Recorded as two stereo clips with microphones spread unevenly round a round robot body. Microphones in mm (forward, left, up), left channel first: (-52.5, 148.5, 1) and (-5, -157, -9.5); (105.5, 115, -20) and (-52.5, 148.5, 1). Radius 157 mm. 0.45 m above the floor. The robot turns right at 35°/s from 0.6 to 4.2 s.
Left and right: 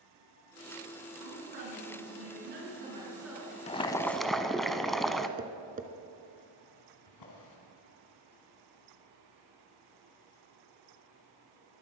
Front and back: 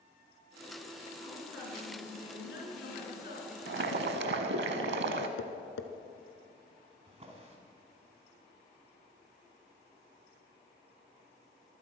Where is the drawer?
120° left, 3 m.